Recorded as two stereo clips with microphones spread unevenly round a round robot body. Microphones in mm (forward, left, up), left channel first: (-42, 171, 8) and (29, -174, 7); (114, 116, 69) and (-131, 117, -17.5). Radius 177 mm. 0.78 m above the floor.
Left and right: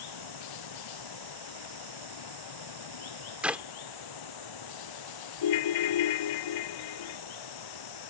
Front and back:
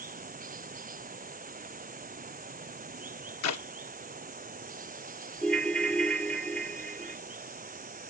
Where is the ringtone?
85° left.